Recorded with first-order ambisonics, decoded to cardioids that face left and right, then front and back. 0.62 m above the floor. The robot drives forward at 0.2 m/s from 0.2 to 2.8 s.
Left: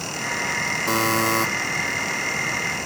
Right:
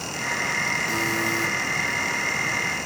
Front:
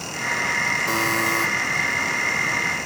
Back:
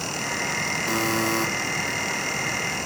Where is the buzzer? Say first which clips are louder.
Left 3 dB, front 3 dB; 85° left, 0.6 m; by 1.5 s 95° left, 0.6 m.